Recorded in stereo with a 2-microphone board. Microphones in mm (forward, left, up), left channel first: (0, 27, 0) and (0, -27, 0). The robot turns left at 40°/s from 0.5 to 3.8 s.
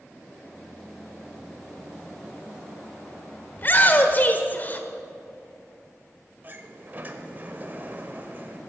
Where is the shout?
40° left (ahead or behind), 1.2 m; by 4.9 s 35° left (ahead or behind), 1.2 m.